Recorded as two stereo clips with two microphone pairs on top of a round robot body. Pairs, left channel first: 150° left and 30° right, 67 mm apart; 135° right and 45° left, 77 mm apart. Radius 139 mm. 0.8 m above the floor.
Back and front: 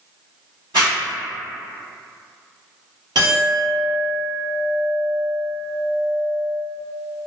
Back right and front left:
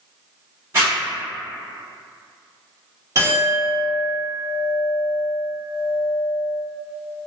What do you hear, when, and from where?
0.7 s a zipper: straight ahead, 0.7 m
3.1 s a clink: 10° right, 1.2 m